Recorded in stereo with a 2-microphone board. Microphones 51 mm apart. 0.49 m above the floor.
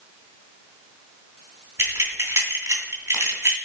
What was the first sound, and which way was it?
Keys jangling, 65° right (ahead or behind).